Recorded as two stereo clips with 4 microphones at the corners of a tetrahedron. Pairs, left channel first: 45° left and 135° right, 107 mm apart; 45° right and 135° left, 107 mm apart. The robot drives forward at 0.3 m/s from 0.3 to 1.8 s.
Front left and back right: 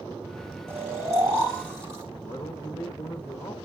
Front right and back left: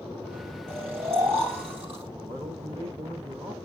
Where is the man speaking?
105° left, 1.4 m.